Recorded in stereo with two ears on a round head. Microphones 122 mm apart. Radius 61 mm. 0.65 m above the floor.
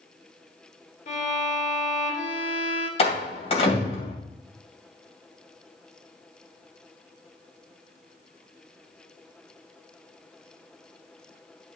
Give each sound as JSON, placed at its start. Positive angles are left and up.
{"t": 1.1, "sound": "a violin", "side_deg": 55, "distance_m": 2.5}
{"t": 3.0, "sound": "a door slam", "side_deg": 45, "distance_m": 2.5}